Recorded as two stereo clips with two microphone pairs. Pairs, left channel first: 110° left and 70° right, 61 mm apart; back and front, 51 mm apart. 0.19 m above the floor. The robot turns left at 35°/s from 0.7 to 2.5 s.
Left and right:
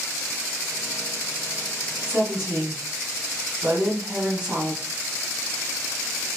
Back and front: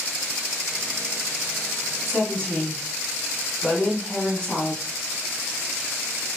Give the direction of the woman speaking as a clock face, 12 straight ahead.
4 o'clock.